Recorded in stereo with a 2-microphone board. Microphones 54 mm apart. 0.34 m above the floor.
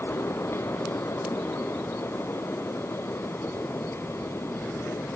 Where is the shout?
I don't hear a shout.